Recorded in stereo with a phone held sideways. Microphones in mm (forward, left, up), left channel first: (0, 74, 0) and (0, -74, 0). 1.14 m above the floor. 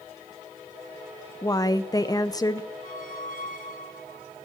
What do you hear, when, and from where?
1.4 s a woman speaking: 25° left (ahead or behind), 0.6 m
2.8 s a squeak: 65° left (ahead or behind), 2.5 m